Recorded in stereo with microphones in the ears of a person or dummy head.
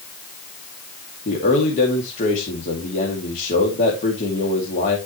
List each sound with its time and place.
1.2 s a man speaking: 40° left (ahead or behind), 2 m